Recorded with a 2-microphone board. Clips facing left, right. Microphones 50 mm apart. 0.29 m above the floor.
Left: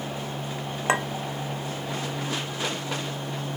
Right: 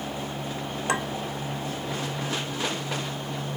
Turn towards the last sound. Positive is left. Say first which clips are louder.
# left 3 dB
turn(degrees=30)  # may be behind; listen again after turning